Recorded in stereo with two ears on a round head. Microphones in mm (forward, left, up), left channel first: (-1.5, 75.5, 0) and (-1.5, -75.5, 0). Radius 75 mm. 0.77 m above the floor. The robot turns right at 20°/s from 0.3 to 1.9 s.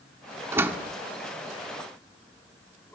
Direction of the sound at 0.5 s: 15° right (ahead or behind).